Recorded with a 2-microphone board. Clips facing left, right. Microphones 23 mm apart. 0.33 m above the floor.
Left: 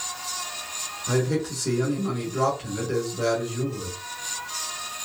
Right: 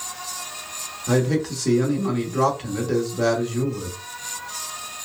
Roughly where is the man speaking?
Centre.